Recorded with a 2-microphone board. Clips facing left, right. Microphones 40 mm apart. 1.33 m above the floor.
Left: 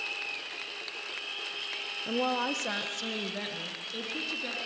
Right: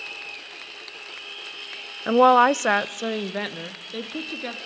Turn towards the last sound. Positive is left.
turn(degrees=-35)  # may be behind; listen again after turning